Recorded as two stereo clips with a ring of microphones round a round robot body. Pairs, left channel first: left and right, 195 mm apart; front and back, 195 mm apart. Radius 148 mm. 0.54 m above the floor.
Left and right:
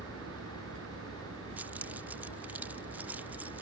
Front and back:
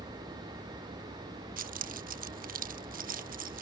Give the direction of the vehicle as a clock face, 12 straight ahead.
3 o'clock.